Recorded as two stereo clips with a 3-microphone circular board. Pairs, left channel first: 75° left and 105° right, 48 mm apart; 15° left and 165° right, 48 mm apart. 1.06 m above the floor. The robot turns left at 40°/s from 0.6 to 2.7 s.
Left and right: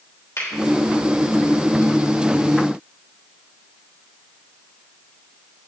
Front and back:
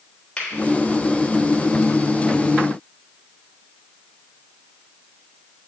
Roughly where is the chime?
No chime in this recording.